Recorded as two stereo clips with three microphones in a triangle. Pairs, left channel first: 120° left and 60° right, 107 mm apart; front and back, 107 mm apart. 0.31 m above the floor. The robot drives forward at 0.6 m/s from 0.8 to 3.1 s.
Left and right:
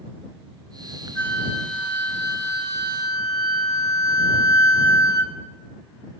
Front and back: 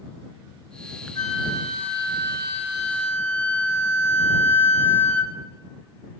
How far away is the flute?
About 3 m.